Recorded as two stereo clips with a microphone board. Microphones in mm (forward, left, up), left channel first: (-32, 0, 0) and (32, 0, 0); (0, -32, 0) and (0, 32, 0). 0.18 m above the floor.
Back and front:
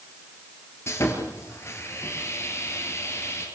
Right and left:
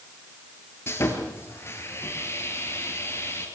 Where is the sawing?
135° right, 3.5 m.